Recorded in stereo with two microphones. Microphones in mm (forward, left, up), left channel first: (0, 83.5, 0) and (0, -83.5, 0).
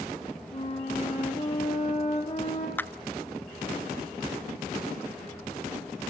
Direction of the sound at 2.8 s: 10° left (ahead or behind).